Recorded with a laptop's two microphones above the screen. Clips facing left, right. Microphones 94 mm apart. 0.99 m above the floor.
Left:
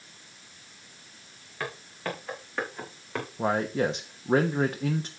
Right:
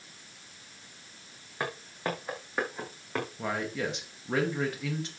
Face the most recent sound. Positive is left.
turn(degrees=35)  # may be behind; listen again after turning